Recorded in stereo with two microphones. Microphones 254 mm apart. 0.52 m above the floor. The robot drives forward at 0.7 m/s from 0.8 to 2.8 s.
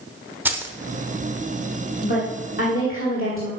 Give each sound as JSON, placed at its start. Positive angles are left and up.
{"t": 0.5, "sound": "keys jangling", "side_deg": -10, "distance_m": 1.0}
{"t": 2.0, "sound": "a woman speaking", "side_deg": 45, "distance_m": 1.8}